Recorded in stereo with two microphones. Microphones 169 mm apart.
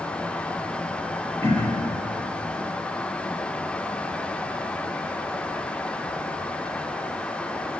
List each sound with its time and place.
1.4 s throat clearing: 15° left (ahead or behind), 0.9 m